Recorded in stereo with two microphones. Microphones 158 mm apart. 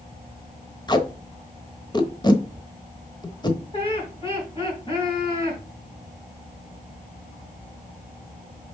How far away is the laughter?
About 2.5 m.